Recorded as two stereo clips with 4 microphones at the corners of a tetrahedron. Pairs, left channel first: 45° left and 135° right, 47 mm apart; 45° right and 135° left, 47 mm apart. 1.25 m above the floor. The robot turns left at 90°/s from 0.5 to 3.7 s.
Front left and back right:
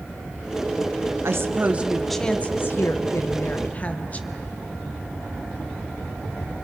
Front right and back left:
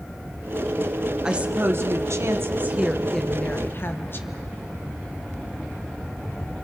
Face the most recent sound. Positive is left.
turn(degrees=-10)